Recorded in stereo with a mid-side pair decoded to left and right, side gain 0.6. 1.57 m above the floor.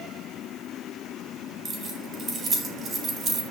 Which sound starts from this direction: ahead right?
Keys jangling, at 1.6 s.